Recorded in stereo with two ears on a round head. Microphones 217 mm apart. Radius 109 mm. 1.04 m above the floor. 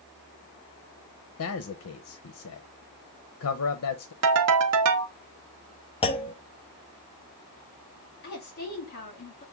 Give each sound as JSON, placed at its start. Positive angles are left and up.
{"t": 1.4, "sound": "a man speaking", "side_deg": 60, "distance_m": 0.6}
{"t": 4.2, "sound": "a ringtone", "side_deg": -70, "distance_m": 0.7}
{"t": 6.0, "sound": "a clunk", "side_deg": 25, "distance_m": 0.5}
{"t": 8.2, "sound": "a woman speaking", "side_deg": 45, "distance_m": 1.8}